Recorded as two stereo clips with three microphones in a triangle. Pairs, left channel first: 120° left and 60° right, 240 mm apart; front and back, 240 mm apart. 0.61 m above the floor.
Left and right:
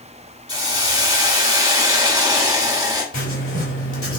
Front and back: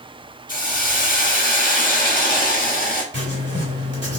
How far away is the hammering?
No hammering in this recording.